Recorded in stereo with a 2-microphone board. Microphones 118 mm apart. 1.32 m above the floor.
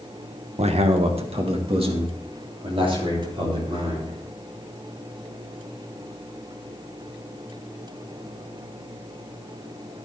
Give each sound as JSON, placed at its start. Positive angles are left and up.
{"t": 0.6, "sound": "a man speaking", "side_deg": -60, "distance_m": 1.1}